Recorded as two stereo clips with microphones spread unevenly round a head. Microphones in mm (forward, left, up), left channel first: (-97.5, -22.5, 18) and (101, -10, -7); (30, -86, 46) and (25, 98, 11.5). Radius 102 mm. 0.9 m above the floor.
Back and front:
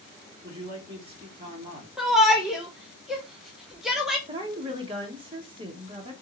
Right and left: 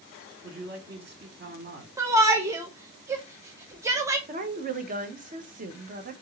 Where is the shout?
75° left, 0.6 m.